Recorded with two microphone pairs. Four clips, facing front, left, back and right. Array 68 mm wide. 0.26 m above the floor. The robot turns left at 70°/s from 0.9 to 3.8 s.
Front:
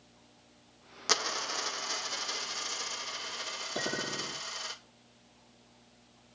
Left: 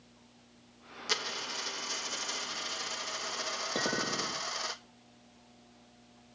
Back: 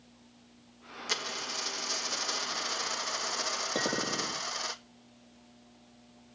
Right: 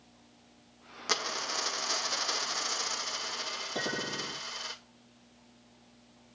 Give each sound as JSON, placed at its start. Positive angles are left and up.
{"t": 1.1, "sound": "a dropped coin", "azimuth_deg": -30, "distance_m": 0.9}
{"t": 3.8, "sound": "a clink", "azimuth_deg": 150, "distance_m": 5.5}